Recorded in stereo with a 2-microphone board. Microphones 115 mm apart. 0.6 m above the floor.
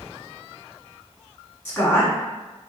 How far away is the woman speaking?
About 1.4 m.